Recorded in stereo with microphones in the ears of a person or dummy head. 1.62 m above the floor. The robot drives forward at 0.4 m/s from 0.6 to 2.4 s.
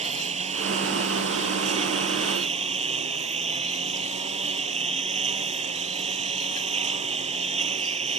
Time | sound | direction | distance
0.0 | a lawn mower | 35° right (ahead or behind) | ?